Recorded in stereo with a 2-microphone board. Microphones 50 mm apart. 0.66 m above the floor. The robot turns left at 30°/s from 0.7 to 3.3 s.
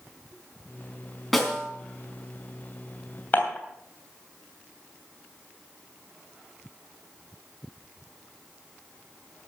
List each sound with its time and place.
1.3 s a snare drum: 5° left (ahead or behind), 4 m; by 1.7 s 15° left (ahead or behind), 4 m
3.3 s dishes clattering: 35° left (ahead or behind), 2.5 m